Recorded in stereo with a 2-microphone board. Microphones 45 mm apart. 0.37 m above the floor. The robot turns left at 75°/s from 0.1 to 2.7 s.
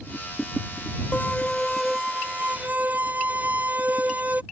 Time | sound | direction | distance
1.1 | a violin | 50° left | ?